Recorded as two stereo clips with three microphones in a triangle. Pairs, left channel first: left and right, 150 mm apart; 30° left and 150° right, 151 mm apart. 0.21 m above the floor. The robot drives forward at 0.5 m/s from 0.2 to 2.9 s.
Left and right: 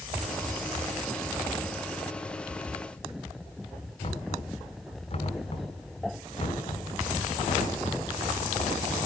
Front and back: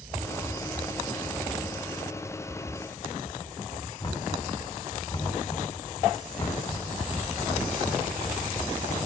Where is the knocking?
85° left, 1.6 m.